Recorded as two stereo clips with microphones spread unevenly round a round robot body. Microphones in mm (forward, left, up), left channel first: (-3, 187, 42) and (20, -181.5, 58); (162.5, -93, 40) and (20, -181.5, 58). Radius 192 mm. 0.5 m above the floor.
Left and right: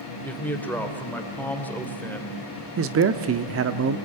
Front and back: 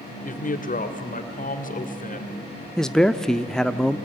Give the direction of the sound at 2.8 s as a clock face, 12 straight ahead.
2 o'clock.